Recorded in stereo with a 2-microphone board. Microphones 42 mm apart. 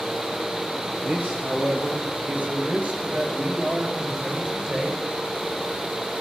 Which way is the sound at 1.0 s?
55° right (ahead or behind).